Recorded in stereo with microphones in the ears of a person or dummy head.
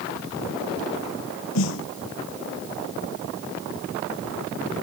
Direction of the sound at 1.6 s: 75° left (ahead or behind).